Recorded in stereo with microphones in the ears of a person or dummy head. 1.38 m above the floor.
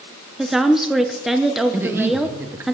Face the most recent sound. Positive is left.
turn(degrees=-10)  # may be behind; listen again after turning